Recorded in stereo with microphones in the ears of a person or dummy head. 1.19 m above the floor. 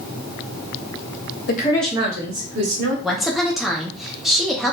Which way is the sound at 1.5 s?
50° left (ahead or behind).